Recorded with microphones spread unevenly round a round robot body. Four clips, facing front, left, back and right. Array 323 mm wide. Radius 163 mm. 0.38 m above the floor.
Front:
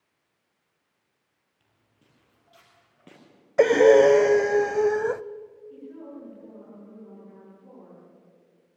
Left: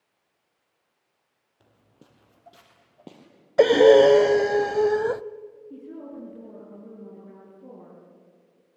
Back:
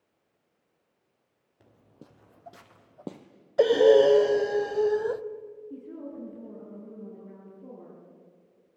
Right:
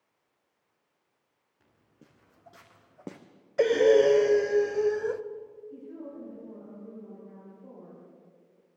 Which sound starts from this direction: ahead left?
Breathing, at 3.6 s.